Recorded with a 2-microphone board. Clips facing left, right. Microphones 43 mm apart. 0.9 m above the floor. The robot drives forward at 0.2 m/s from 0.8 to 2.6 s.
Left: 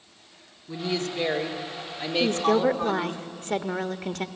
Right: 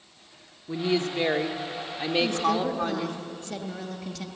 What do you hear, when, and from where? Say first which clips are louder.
0.7 s a woman speaking: right 3 dB; 20° right (ahead or behind), 1.6 m; by 3.2 s 15° right (ahead or behind), 1.9 m
2.2 s a woman speaking: left 5 dB; 50° left (ahead or behind), 1.1 m; by 4.3 s 45° left (ahead or behind), 1.2 m